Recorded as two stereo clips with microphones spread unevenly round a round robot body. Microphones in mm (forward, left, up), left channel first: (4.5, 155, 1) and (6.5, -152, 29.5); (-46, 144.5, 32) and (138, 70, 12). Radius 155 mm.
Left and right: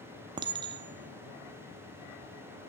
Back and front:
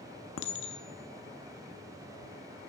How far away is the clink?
About 0.5 m.